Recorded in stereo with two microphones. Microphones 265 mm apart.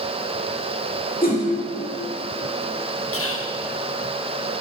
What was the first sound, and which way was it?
A whoosh, 35° left (ahead or behind).